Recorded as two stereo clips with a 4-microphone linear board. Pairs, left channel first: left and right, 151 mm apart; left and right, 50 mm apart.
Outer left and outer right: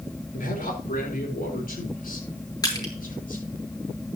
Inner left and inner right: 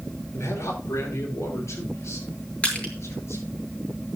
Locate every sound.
0.3 s a man speaking: 65° left (ahead or behind), 4 m
2.6 s crushing: 25° left (ahead or behind), 4 m